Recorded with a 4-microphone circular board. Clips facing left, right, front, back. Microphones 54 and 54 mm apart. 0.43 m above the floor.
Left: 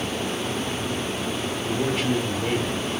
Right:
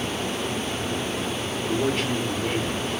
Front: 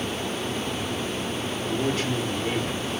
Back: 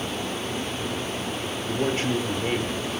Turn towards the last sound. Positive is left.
turn(degrees=175)